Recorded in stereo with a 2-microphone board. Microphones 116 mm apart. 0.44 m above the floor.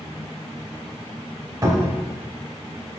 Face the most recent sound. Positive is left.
turn(degrees=-30)  # may be behind; listen again after turning